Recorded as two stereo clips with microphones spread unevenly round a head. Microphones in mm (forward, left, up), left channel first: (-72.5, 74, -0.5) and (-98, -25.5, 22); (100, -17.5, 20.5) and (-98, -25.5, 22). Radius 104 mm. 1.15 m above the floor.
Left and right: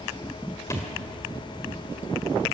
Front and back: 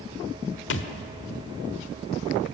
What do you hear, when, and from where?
0.7 s a thud: 5° right, 1.2 m